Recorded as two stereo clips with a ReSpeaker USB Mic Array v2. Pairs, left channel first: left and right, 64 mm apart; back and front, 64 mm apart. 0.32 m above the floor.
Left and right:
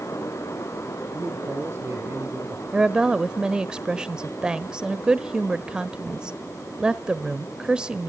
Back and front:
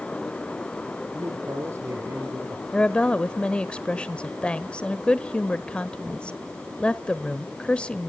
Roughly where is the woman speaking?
Behind right.